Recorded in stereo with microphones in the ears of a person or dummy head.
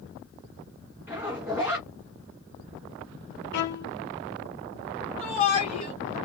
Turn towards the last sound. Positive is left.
turn(degrees=40)  # may be behind; listen again after turning